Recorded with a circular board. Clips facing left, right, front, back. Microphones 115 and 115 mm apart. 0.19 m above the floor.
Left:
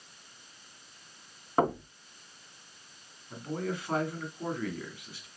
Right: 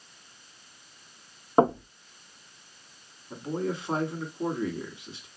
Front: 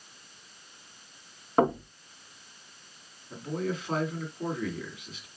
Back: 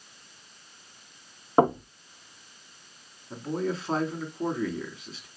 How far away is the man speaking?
About 1.7 m.